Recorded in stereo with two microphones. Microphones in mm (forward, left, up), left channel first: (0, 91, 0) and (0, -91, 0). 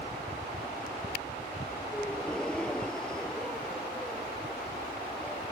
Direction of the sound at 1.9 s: 5° left (ahead or behind).